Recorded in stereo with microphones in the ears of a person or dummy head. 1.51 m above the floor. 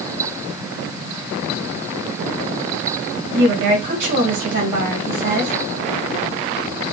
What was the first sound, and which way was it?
A woman speaking, 60° right (ahead or behind).